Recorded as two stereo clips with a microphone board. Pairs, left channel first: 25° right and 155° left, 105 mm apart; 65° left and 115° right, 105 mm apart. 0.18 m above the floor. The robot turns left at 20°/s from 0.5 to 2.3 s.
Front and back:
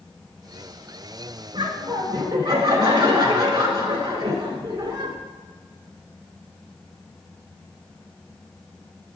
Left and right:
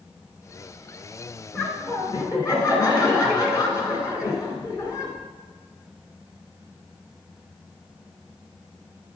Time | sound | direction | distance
1.5 | laughter | 130° left | 1.9 m